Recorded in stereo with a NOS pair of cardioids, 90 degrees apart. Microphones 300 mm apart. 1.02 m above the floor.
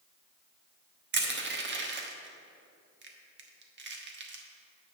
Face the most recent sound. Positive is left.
turn(degrees=-35)